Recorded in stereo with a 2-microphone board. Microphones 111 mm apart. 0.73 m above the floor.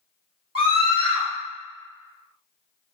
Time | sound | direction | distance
0.6 | a scream | 55° right (ahead or behind) | 1.9 m